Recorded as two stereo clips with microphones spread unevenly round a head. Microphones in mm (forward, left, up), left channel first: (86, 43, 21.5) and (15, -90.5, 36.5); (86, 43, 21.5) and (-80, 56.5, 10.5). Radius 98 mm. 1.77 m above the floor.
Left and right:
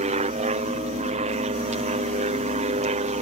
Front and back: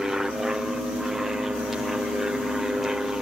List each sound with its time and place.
0.0 s an aircraft: 100° right